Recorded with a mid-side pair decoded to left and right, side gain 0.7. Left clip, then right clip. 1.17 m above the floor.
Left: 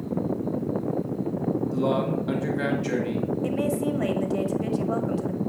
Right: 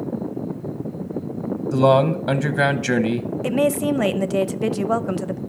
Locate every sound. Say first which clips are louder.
1.7 s a man speaking: right 12 dB; 65° right, 1.0 m
3.4 s a woman speaking: right 9 dB; 45° right, 0.6 m